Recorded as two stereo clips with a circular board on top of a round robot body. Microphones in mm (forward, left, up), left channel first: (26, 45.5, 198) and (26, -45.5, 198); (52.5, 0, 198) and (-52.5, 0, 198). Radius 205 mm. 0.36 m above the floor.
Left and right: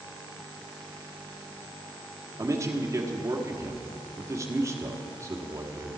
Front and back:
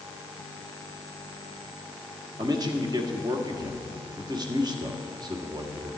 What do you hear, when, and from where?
2.4 s a man speaking: 140° right, 1.4 m